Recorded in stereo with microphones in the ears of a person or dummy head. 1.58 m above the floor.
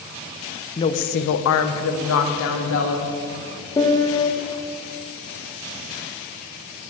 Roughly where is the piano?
Centre.